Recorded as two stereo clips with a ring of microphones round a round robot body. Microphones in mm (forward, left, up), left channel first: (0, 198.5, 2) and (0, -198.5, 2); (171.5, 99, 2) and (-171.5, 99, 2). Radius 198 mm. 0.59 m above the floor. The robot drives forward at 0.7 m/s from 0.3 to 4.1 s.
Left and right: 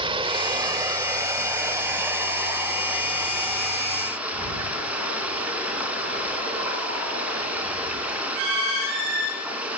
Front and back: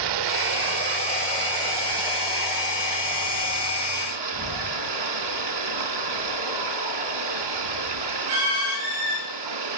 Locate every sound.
0.0 s running water: 170° right, 1.1 m; by 9.8 s 175° right, 3.5 m